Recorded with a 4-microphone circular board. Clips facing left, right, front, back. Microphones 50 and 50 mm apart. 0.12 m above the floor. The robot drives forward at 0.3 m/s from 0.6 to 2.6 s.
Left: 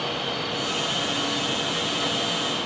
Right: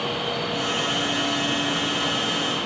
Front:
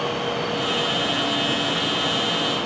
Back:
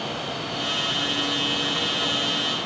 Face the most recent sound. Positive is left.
No sound to turn to.